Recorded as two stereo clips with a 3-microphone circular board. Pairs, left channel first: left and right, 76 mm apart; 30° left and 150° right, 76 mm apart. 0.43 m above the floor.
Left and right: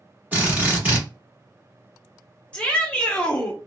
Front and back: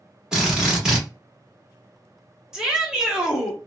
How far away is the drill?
About 1.4 m.